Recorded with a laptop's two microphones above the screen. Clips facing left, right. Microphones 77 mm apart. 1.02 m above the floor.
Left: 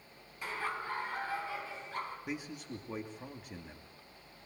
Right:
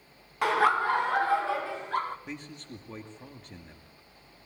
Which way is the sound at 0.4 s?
70° right (ahead or behind).